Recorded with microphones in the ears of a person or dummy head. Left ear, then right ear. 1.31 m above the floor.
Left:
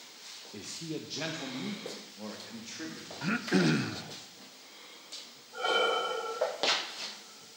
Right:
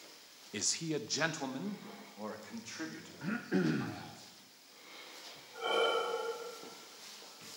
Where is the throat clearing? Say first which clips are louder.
Left 6 dB; 25° left (ahead or behind), 0.6 m.